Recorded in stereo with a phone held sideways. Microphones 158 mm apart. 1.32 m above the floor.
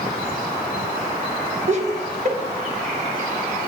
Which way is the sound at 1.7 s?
45° right (ahead or behind).